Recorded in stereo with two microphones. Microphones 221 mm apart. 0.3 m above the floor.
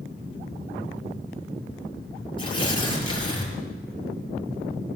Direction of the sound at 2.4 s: 20° left (ahead or behind).